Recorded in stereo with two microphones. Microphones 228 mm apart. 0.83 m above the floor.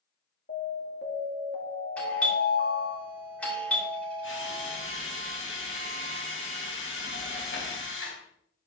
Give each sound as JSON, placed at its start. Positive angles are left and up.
{"t": 0.5, "sound": "an alarm", "side_deg": 50, "distance_m": 2.0}
{"t": 2.0, "sound": "a doorbell", "side_deg": 5, "distance_m": 3.5}
{"t": 4.2, "sound": "a drill", "side_deg": 55, "distance_m": 2.5}